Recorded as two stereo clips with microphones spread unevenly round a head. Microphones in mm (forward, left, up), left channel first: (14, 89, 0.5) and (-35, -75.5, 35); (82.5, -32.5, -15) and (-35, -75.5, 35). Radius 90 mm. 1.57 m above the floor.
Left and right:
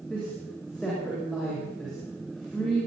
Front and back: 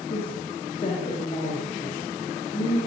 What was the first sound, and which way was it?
A woman speaking, 10° right.